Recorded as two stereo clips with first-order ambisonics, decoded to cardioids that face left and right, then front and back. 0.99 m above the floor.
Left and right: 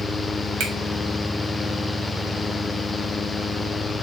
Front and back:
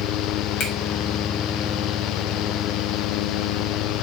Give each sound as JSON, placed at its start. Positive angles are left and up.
{"t": 0.6, "sound": "a finger snap", "azimuth_deg": -55, "distance_m": 0.9}